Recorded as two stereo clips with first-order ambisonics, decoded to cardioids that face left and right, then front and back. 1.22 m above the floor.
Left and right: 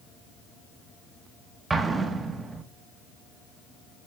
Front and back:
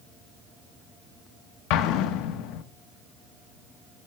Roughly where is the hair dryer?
I don't hear a hair dryer.